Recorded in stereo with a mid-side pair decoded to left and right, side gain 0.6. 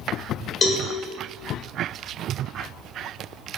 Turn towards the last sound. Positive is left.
turn(degrees=35)